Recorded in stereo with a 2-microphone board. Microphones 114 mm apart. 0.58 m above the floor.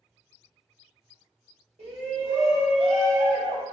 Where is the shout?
70° right (ahead or behind), 1.9 m.